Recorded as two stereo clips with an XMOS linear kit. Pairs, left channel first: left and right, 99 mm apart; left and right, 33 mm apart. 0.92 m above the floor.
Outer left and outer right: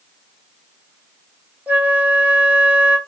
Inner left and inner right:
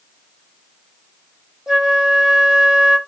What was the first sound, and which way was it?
A flute, 15° right (ahead or behind).